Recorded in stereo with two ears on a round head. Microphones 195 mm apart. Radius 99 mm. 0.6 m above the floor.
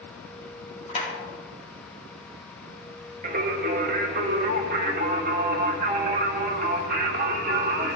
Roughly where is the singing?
Right.